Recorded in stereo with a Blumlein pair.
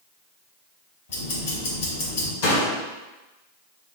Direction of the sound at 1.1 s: 60° left.